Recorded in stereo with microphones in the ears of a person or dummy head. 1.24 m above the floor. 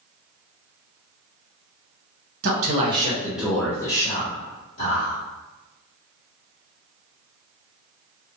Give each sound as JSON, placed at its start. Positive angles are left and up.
{"t": 2.4, "sound": "a man speaking", "side_deg": -50, "distance_m": 0.9}